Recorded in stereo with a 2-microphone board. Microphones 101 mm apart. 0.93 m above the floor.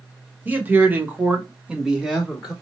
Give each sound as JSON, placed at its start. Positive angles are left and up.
{"t": 0.5, "sound": "a man speaking", "side_deg": -20, "distance_m": 1.4}